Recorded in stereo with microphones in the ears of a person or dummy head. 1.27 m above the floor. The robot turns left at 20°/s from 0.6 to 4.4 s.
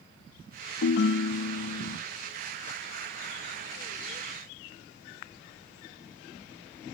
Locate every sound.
0.8 s a ringtone: 60° left (ahead or behind), 0.5 m; by 2.0 s 75° left (ahead or behind), 0.5 m